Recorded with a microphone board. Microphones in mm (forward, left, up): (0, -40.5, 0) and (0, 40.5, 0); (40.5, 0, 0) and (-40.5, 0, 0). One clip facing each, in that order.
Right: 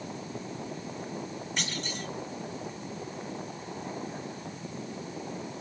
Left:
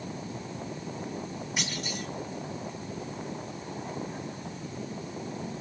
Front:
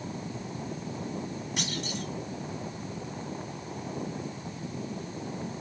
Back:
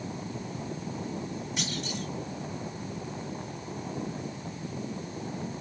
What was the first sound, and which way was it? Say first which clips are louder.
A clunk: left 1 dB, front 1 dB; 10° left.